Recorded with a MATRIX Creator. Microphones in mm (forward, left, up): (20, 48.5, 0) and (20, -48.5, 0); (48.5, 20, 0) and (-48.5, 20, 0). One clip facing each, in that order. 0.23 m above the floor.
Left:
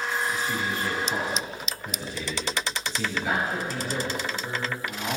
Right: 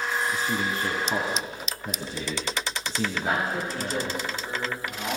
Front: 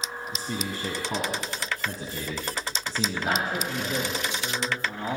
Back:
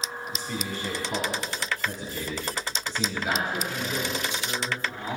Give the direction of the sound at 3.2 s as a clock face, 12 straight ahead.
12 o'clock.